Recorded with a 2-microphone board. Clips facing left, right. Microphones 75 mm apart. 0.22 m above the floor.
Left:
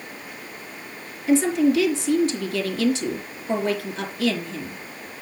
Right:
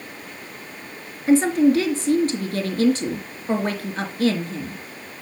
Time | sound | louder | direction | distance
1.3 | a woman speaking | right 3 dB | 45° right (ahead or behind) | 3.5 m